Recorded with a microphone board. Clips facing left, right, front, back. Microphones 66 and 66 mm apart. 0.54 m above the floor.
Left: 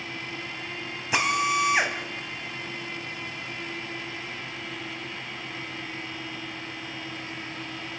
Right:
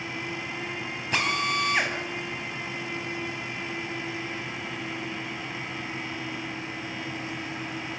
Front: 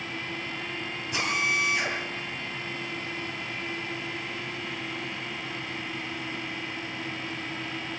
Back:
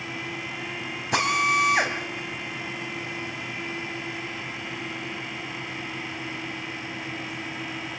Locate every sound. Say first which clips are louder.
1.1 s a drill: left 3 dB, back 6 dB; 170° left, 3.5 m